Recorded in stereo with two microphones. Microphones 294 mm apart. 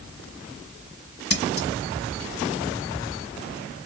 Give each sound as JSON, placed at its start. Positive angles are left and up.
{"t": 1.3, "sound": "scissors", "side_deg": 50, "distance_m": 1.2}